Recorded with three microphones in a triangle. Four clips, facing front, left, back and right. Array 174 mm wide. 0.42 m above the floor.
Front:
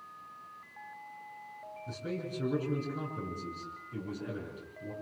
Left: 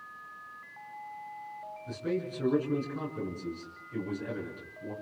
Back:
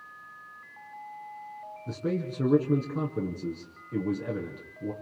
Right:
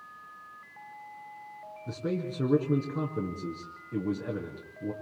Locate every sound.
1.9 s a man speaking: 145° right, 5.5 m